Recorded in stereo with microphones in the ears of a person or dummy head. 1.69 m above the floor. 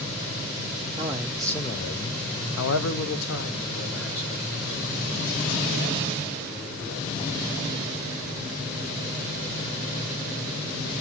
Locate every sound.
1.0 s a man speaking: 20° right (ahead or behind), 0.7 m; by 8.0 s 65° left (ahead or behind), 5 m